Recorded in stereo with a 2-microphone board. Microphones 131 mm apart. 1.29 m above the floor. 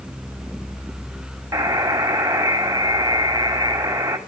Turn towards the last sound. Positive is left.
turn(degrees=-25)  # may be behind; listen again after turning